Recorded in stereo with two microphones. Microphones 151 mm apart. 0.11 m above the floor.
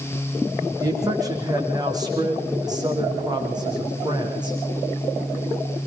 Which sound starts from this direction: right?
A man speaking, at 0.8 s.